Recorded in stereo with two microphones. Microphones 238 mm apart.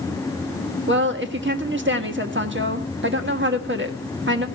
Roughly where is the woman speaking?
Right.